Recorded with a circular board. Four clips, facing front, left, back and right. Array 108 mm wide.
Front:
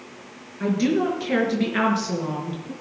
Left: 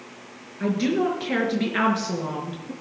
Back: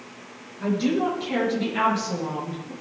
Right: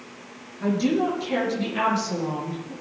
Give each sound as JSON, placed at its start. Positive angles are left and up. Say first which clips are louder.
{"t": 0.6, "sound": "a woman speaking", "louder": "even, front 2 dB", "azimuth_deg": 45, "distance_m": 5.5}